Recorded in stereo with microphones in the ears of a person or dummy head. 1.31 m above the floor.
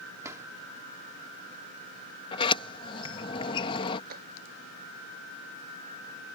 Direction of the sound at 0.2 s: 20° right (ahead or behind).